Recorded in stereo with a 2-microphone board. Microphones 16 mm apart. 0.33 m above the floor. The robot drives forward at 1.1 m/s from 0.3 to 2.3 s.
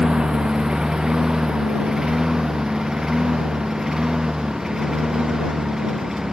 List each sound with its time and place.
0.0 s a lawn mower: 55° right (ahead or behind); by 6.3 s 30° right (ahead or behind)